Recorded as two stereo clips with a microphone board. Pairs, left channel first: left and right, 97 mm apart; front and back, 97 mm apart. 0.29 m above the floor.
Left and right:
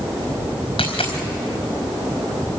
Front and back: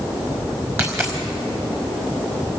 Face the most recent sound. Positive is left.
turn(degrees=115)